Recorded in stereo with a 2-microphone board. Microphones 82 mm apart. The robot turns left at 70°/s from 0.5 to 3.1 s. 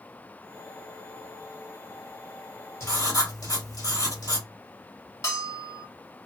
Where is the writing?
35° left (ahead or behind), 1.6 m; by 4.5 s 50° left (ahead or behind), 1.6 m.